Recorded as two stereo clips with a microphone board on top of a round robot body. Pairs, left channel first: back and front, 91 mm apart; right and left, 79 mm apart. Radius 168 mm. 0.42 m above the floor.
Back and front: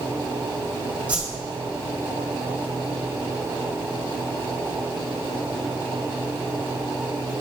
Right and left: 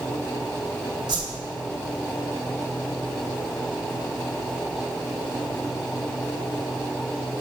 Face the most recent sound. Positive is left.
turn(degrees=75)